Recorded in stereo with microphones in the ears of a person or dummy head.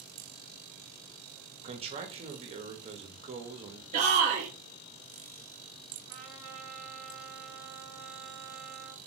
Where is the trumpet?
20° right (ahead or behind), 1.1 m.